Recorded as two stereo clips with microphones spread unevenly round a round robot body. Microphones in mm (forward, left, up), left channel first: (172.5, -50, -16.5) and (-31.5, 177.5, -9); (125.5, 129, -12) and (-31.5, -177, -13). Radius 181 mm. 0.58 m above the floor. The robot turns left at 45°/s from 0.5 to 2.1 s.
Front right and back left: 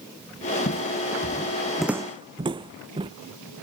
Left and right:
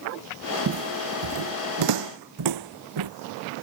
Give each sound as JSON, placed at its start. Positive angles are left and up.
{"t": 0.7, "sound": "footsteps", "azimuth_deg": -95}